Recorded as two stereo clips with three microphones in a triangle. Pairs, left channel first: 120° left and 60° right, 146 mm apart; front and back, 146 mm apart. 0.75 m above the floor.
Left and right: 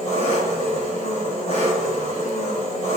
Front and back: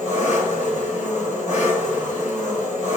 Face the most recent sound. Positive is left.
turn(degrees=-25)